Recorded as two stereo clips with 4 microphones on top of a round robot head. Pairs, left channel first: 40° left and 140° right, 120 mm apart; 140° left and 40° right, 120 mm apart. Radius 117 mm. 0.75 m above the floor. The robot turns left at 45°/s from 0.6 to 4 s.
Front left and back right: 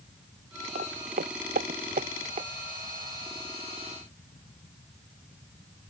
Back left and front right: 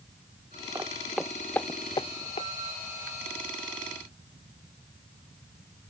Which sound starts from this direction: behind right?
Footsteps, at 0.8 s.